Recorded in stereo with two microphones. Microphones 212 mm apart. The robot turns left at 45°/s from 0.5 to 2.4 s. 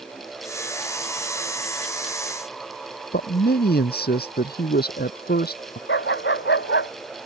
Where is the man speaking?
45° left (ahead or behind).